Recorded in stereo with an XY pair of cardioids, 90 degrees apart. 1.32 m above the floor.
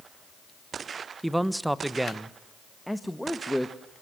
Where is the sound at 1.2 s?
10° right, 1.3 m.